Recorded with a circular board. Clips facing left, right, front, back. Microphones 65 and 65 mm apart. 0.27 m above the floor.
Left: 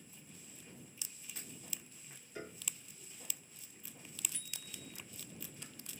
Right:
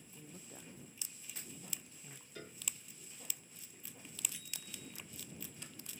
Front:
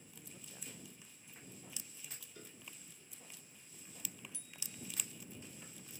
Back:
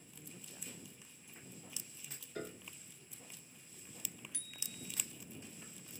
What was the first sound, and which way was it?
A woman speaking, 85° right.